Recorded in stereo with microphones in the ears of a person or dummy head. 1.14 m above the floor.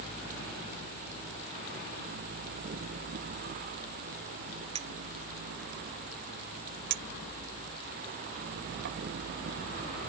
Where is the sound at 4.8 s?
35° right (ahead or behind).